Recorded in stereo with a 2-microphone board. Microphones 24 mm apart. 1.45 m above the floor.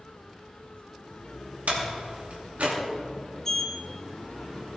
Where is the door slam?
80° right, 2.5 m.